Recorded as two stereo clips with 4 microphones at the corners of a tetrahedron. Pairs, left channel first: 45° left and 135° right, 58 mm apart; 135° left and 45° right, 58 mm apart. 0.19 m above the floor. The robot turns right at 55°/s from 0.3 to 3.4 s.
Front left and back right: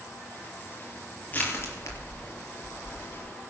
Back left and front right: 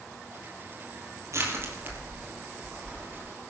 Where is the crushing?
15° right, 4 m; by 3.2 s 90° left, 4 m.